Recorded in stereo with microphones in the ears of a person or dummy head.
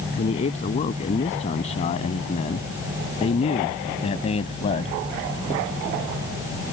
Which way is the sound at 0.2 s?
35° left (ahead or behind).